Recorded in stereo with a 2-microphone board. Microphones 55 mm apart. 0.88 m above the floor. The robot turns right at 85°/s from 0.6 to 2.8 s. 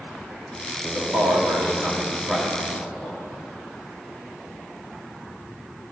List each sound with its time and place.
0.9 s a man speaking: 130° right, 1.9 m; by 3.3 s 25° left, 1.9 m